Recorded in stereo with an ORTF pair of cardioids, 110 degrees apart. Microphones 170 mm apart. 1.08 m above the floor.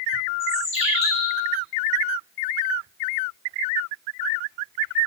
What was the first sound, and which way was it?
A bird, 40° left.